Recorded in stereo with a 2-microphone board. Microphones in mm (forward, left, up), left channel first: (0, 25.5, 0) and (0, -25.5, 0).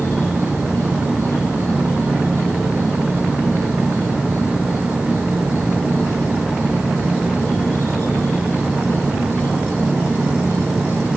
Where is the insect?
60° left (ahead or behind), 8 m.